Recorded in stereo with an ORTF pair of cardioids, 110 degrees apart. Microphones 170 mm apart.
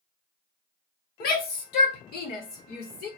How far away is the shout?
About 1.6 m.